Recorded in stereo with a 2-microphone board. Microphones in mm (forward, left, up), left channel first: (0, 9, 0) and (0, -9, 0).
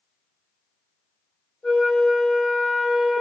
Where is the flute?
65° left (ahead or behind), 1.0 m.